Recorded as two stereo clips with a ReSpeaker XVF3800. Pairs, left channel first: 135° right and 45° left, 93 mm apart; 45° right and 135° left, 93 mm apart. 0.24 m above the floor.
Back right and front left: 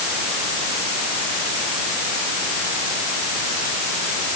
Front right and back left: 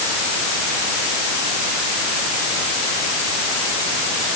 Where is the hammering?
I don't hear hammering.